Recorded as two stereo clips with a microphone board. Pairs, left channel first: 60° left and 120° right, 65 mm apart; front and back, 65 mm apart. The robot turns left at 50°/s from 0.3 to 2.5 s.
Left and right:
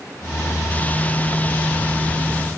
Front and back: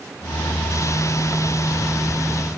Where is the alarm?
No alarm in this recording.